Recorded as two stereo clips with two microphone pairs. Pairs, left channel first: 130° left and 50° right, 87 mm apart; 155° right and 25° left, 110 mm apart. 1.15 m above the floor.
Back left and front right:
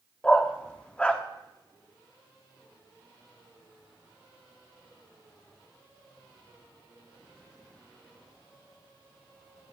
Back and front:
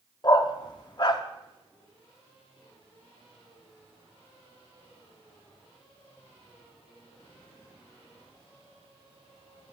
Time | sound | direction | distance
0.2 | a dog barking | 155° right | 0.7 m